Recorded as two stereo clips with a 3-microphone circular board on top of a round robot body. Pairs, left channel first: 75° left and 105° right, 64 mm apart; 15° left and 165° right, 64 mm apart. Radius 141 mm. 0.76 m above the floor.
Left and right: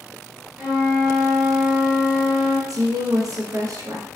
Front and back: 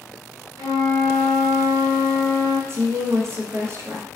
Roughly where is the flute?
Behind.